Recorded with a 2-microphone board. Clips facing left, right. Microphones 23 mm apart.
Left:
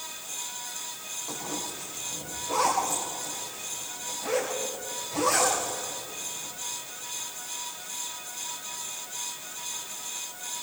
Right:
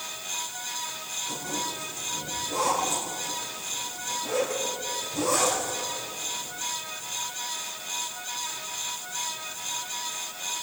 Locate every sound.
1.3 s a zipper: 50° left (ahead or behind), 8.5 m